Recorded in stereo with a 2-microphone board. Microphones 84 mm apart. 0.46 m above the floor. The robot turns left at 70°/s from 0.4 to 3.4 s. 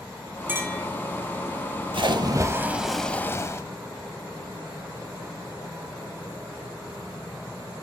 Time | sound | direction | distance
0.5 | a clink | 20° right (ahead or behind) | 2.5 m
1.9 | a splash | 110° right | 0.6 m